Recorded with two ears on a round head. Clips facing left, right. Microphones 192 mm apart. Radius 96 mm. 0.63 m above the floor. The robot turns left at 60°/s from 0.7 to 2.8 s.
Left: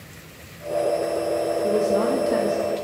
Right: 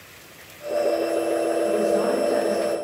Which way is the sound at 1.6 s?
105° left.